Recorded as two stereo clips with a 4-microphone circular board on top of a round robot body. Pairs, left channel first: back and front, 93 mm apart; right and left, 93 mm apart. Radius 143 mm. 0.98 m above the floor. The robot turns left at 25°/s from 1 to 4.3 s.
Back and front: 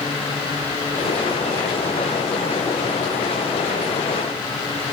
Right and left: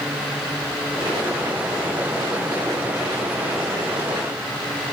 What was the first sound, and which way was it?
Only background noise.